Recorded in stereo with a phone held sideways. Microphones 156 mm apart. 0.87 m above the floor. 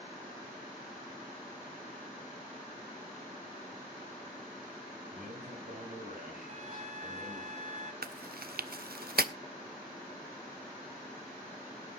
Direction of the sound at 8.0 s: 80° right.